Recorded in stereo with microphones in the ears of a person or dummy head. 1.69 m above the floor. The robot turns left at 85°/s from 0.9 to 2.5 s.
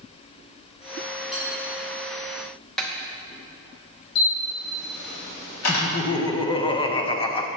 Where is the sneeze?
No sneeze in this recording.